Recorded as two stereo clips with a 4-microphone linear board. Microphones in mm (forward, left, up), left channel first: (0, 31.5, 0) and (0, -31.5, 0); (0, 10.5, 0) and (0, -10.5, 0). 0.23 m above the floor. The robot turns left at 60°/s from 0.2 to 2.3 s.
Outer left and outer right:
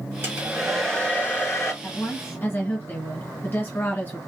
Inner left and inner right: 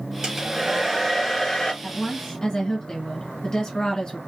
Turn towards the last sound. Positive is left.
turn(degrees=35)  # may be behind; listen again after turning